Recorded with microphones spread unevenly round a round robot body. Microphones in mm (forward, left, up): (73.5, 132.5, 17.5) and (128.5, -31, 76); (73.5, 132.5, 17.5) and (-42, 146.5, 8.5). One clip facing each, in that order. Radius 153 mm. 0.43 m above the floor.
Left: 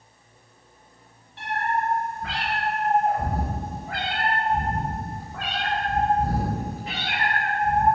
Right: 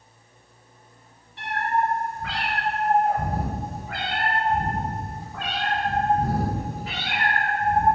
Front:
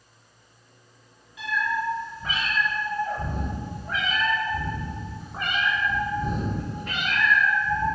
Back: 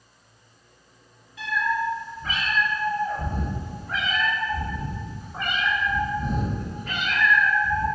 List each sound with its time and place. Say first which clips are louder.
1.4 s a cat meowing: right 2 dB, back 2 dB; 110° right, 3 m; by 7.8 s 105° right, 7 m